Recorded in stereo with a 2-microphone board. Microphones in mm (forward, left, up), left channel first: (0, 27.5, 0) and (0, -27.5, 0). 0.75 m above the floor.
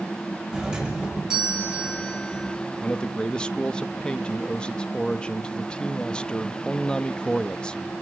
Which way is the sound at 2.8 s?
15° left (ahead or behind).